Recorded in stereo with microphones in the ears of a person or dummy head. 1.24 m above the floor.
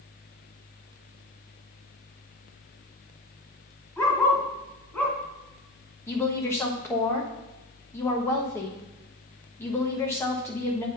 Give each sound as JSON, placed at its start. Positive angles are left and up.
{"t": 4.0, "sound": "a dog barking", "side_deg": 15, "distance_m": 1.8}
{"t": 6.1, "sound": "a woman speaking", "side_deg": 15, "distance_m": 1.3}